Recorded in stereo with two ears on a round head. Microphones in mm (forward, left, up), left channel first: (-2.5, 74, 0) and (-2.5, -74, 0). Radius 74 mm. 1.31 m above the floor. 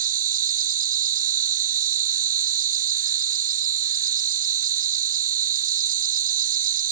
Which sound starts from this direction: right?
An insect, at 0.0 s.